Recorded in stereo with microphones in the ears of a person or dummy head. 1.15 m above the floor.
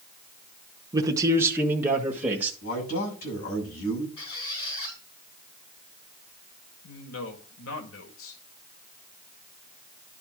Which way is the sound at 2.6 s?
45° left (ahead or behind).